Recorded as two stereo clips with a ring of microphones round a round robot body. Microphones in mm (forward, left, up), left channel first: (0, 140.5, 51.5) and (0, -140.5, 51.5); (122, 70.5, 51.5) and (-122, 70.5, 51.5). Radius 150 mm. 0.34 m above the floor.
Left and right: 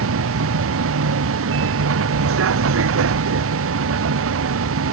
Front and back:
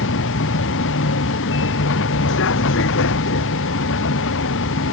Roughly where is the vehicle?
Ahead right.